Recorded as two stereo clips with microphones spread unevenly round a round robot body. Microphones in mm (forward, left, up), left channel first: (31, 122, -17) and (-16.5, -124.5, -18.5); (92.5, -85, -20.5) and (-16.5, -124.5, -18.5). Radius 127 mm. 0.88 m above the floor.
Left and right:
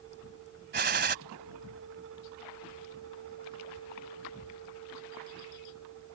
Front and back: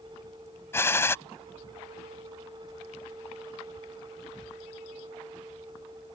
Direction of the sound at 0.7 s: 50° right.